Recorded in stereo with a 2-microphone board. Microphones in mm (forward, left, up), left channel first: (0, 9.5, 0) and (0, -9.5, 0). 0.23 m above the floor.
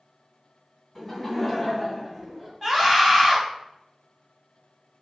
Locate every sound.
0.9 s laughter: centre (ahead or behind), 2 m; by 2.5 s 10° right (ahead or behind), 3 m
2.6 s a scream: 15° right (ahead or behind), 1.5 m